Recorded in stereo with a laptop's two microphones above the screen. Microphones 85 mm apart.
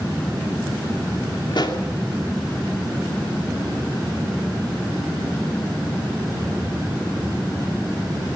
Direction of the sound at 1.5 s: 60° left (ahead or behind).